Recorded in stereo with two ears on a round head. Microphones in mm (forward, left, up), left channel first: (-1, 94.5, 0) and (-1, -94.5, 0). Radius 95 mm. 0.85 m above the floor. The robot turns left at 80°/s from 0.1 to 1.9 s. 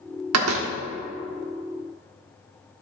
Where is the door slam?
95° right, 1.2 m; by 0.7 s 125° right, 1.2 m.